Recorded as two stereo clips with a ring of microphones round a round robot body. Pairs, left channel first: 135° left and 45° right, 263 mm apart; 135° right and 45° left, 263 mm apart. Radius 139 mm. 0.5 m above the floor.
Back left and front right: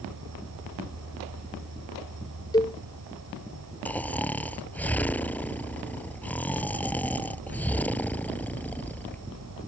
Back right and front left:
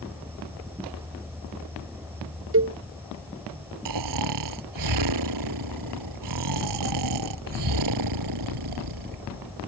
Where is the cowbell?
65° left.